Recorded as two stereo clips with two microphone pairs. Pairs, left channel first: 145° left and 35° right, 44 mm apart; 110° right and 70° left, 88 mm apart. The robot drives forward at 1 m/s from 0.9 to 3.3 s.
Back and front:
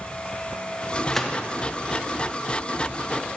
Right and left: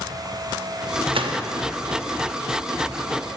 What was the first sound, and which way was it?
A gunshot, 65° left.